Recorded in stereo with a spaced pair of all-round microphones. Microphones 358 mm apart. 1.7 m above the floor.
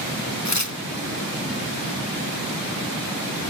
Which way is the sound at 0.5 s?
50° left (ahead or behind).